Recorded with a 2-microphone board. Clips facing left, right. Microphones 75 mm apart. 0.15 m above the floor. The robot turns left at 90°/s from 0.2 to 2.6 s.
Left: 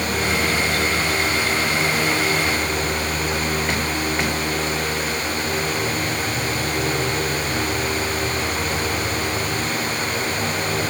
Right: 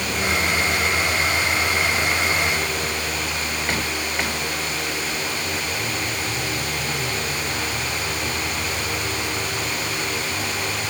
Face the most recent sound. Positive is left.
No sound to turn to.